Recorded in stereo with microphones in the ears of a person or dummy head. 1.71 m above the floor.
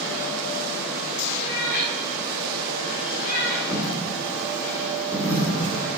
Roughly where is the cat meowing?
Left.